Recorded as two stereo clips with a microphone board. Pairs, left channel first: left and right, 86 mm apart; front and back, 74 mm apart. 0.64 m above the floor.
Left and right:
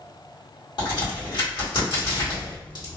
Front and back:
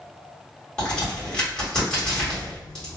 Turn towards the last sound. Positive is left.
turn(degrees=75)